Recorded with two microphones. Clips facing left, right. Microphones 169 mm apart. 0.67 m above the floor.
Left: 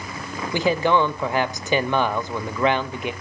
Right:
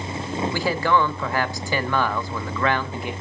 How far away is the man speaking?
About 0.9 m.